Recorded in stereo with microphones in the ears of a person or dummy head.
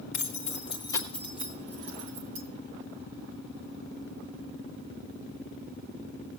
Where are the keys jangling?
45° left (ahead or behind), 1.4 m; by 2.4 s 40° right (ahead or behind), 1.5 m.